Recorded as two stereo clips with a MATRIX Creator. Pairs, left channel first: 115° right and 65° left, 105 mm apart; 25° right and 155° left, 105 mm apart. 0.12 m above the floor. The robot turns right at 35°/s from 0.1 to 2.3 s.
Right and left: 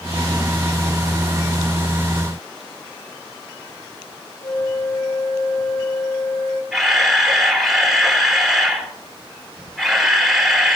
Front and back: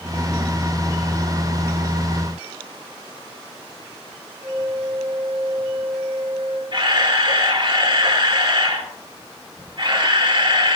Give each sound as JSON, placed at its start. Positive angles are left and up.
{"t": 4.4, "sound": "a flute", "azimuth_deg": -165, "distance_m": 6.5}
{"t": 6.7, "sound": "a camera shutter", "azimuth_deg": 155, "distance_m": 3.0}